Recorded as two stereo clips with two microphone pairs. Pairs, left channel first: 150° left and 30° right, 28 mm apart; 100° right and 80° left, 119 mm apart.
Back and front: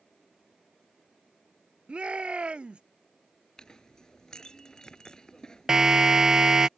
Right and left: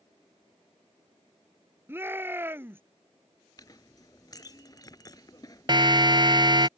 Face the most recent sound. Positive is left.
turn(degrees=35)